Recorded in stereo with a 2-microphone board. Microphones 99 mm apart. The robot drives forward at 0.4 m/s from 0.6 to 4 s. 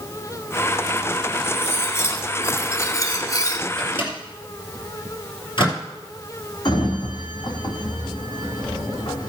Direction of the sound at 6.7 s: 50° left (ahead or behind).